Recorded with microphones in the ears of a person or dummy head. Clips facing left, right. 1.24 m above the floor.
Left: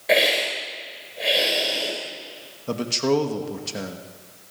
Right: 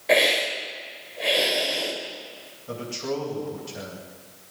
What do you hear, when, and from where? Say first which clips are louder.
0.1 s a hiss: left 1 dB; centre (ahead or behind), 4.5 m
2.7 s a man speaking: left 8 dB; 75° left (ahead or behind), 2 m